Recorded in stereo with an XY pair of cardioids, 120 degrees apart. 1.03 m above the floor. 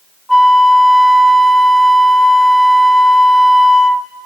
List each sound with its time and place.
0.3 s a flute: 5° left, 0.7 m